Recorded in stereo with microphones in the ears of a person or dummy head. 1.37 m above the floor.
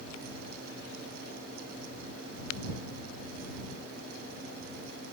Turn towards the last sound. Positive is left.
No sound to turn to.